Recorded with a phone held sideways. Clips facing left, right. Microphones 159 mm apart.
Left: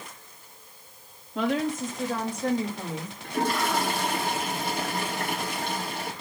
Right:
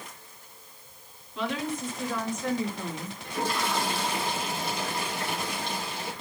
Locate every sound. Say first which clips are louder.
1.4 s a woman speaking: left 5 dB; 50° left (ahead or behind), 3 m; by 3.1 s 15° left (ahead or behind), 2.5 m
3.2 s a toilet flushing: left 3 dB; 55° left (ahead or behind), 3 m